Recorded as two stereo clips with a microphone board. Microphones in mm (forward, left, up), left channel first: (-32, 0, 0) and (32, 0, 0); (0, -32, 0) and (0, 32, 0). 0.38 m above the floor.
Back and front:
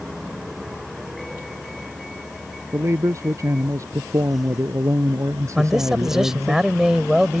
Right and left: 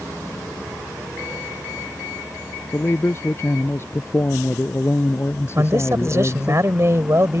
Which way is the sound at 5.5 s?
80° left.